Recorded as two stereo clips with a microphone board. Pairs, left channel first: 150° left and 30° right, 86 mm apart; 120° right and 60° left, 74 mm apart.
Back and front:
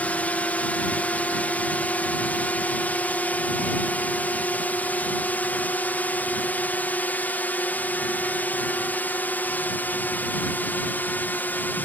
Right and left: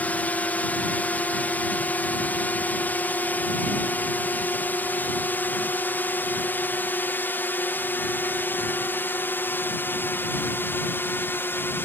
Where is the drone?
160° right; by 11.9 s 155° right.